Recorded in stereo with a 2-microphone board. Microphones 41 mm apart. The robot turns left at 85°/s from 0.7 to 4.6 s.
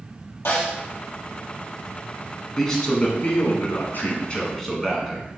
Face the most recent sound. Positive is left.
turn(degrees=5)